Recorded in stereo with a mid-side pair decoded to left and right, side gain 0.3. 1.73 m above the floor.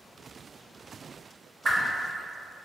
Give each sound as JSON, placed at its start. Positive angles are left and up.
{"t": 1.6, "sound": "a whoosh", "azimuth_deg": -35, "distance_m": 0.8}